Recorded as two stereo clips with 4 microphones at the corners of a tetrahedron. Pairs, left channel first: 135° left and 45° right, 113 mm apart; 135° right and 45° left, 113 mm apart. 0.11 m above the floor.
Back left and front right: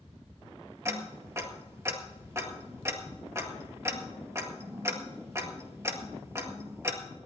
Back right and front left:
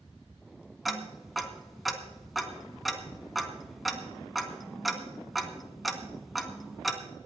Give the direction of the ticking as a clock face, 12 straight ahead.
2 o'clock.